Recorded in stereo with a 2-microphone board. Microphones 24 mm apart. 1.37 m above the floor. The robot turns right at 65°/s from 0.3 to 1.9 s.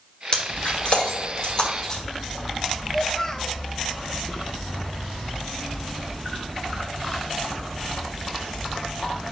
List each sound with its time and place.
0.3 s breaking glass: 45° left (ahead or behind), 1.8 m; by 2.0 s 20° left (ahead or behind), 1.8 m
2.9 s a child speaking: 20° left (ahead or behind), 0.5 m